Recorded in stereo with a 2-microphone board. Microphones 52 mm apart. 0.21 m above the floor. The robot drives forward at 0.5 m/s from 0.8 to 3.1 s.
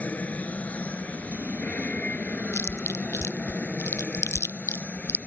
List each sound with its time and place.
0.0 s an aircraft: 30° left (ahead or behind)
2.5 s chewing: 60° left (ahead or behind); by 5.2 s 65° left (ahead or behind)